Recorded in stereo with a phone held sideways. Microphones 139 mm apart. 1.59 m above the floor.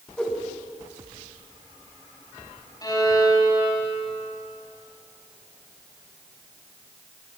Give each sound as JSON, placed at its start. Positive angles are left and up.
{"t": 0.2, "sound": "a whoosh", "side_deg": 5, "distance_m": 2.0}
{"t": 2.8, "sound": "a violin", "side_deg": 25, "distance_m": 2.5}